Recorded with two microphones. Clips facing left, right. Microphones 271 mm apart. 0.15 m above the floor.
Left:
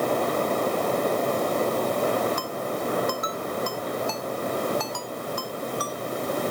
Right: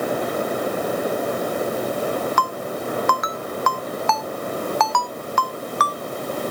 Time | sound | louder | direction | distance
2.4 | a ringtone | right 2 dB | 80° right | ?